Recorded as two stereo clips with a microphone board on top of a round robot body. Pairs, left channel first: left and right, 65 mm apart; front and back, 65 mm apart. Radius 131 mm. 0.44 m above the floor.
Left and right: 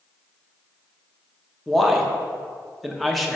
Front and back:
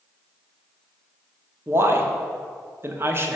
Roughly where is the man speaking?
Behind.